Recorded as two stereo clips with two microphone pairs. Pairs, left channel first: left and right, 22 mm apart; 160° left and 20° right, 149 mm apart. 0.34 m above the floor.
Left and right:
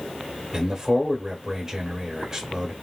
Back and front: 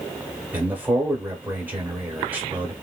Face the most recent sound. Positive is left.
turn(degrees=-80)